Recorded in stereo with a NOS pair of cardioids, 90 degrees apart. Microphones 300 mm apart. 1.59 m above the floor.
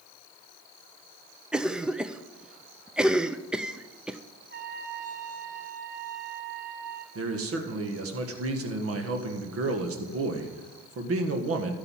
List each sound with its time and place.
1.5 s a cough: 5° right, 0.5 m
4.5 s a trumpet: 40° right, 6 m
7.2 s a man speaking: 55° right, 1.6 m